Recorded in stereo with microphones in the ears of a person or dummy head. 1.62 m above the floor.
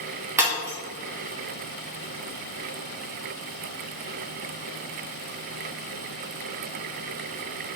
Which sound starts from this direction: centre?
Breaking glass, at 0.4 s.